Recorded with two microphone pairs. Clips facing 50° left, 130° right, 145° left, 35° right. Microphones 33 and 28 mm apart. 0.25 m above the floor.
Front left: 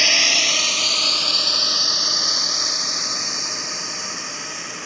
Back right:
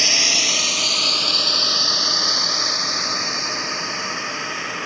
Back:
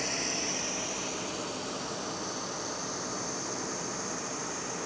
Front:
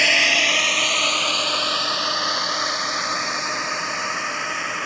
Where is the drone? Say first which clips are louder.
Front left 2 dB, front 18 dB; 25° right; by 4.9 s 65° right.